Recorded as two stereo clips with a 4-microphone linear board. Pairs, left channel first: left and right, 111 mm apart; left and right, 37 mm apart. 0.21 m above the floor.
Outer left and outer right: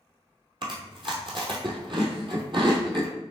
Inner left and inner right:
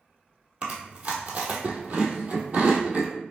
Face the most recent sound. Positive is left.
turn(degrees=-50)  # may be behind; listen again after turning